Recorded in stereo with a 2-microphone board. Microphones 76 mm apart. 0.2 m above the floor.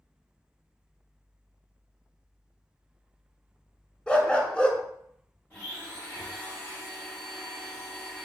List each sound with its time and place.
4.1 s a dog barking: 15° left (ahead or behind), 0.5 m
5.5 s a blender: 25° left (ahead or behind), 1.6 m